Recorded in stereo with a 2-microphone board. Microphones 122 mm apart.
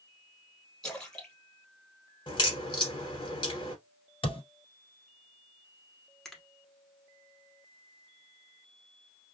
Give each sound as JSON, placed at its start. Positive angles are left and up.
{"t": 0.8, "sound": "a splash", "side_deg": 5, "distance_m": 1.2}
{"t": 2.3, "sound": "a crack", "side_deg": 40, "distance_m": 1.3}
{"t": 4.2, "sound": "a thud", "side_deg": 45, "distance_m": 1.2}
{"t": 6.2, "sound": "a finger snap", "side_deg": 0, "distance_m": 0.9}